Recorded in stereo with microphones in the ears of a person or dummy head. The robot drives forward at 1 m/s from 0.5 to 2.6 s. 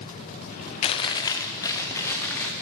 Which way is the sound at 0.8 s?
35° left (ahead or behind).